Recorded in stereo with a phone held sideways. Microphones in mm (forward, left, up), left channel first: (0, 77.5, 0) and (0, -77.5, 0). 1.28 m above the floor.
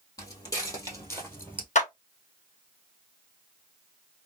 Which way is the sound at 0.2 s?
25° left (ahead or behind).